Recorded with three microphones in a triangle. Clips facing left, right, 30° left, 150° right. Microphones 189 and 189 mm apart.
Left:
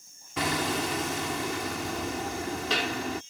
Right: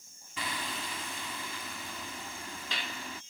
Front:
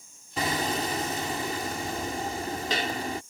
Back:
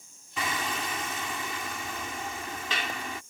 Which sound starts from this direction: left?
Hammering, at 0.4 s.